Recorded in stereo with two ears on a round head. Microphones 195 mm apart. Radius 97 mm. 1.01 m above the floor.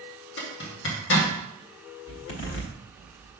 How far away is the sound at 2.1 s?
About 1.6 m.